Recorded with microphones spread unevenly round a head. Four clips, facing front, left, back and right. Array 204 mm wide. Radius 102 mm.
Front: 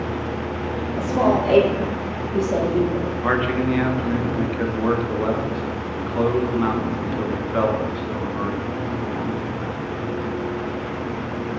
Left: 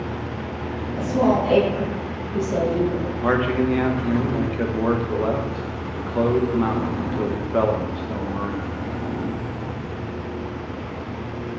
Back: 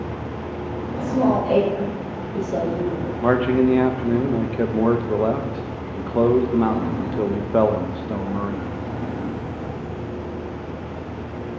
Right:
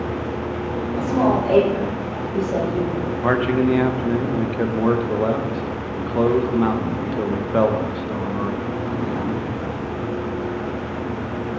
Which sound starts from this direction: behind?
A man speaking, at 3.2 s.